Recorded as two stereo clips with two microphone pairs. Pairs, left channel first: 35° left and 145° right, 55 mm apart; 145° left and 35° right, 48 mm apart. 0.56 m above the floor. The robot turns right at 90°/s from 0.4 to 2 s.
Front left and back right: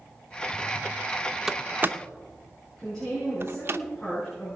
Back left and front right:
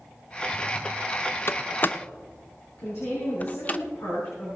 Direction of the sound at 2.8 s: 115° left.